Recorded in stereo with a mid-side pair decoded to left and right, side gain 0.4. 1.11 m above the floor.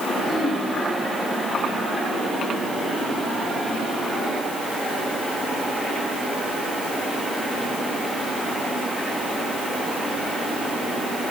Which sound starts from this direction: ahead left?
Throat clearing, at 0.2 s.